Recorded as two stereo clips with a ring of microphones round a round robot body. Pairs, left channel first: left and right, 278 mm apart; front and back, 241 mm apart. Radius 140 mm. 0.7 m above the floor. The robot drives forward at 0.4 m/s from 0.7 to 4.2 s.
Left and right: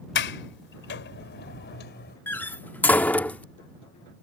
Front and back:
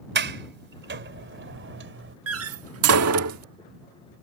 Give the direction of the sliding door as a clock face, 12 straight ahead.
7 o'clock.